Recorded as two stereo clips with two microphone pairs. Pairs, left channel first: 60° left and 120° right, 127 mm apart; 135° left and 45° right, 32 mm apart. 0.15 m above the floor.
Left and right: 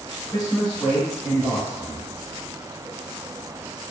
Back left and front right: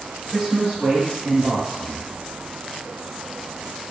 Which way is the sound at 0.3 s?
45° left.